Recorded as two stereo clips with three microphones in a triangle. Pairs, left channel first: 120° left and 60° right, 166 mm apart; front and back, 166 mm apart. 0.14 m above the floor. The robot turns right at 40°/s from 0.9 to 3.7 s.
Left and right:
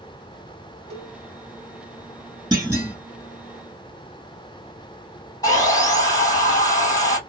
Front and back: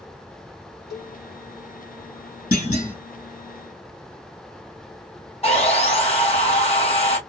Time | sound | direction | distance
0.9 | a cowbell | 95° right | 2 m
2.5 | a clunk | 5° left | 1.7 m
5.4 | sawing | 50° left | 1.9 m